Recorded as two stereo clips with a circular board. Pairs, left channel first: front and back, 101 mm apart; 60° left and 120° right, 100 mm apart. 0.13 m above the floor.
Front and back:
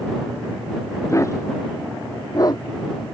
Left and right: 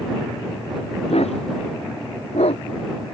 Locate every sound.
1.1 s a dog barking: 60° left; by 2.6 s 50° left